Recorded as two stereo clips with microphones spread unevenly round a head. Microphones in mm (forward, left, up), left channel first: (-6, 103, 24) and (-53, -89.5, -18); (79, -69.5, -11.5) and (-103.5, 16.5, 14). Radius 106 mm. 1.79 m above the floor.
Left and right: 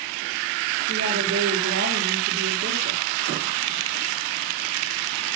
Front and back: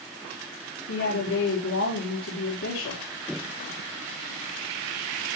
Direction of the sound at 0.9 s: 55° right.